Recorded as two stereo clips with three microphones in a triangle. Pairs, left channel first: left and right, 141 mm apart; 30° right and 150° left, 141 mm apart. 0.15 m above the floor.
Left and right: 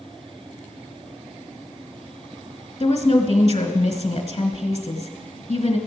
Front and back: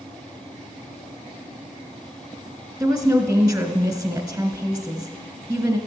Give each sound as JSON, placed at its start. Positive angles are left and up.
{"t": 2.8, "sound": "a woman speaking", "azimuth_deg": 85, "distance_m": 1.4}